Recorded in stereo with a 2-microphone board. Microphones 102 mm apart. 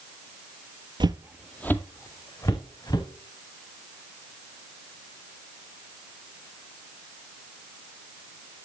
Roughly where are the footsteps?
Right.